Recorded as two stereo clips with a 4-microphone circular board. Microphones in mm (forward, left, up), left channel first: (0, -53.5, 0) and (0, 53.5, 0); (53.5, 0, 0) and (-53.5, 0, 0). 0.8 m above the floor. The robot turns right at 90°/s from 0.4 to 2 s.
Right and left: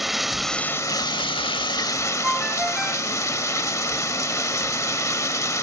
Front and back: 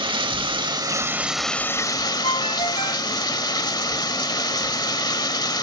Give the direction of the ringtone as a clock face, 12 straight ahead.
12 o'clock.